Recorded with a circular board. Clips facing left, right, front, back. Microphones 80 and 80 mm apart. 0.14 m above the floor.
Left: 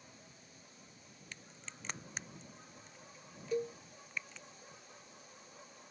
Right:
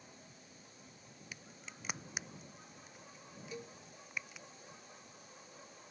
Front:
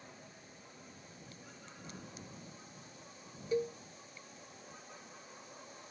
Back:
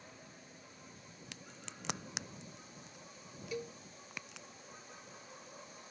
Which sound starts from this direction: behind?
A crack, at 1.3 s.